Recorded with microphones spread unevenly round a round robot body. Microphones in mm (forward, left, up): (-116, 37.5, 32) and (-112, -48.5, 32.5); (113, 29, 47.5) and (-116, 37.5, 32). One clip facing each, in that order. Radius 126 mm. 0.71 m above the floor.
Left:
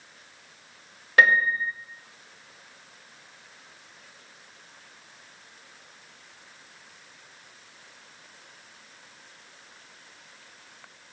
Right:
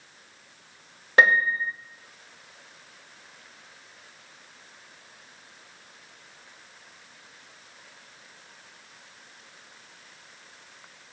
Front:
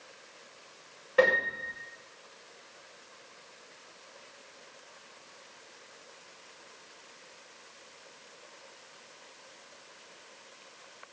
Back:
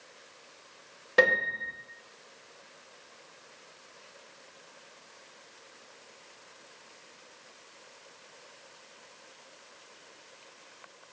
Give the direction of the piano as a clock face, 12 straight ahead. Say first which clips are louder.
Even, front 1 dB; 5 o'clock.